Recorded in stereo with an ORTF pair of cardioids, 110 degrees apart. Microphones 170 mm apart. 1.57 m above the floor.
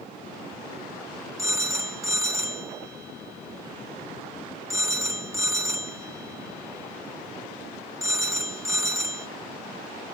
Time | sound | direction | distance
1.4 | a phone ringing | 20° right | 1.3 m